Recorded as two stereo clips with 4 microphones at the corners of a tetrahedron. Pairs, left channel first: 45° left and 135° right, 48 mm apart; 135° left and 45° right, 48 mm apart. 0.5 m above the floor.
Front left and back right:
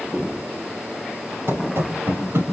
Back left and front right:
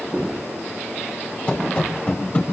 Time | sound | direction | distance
1.5 | running footsteps | 155° right | 5 m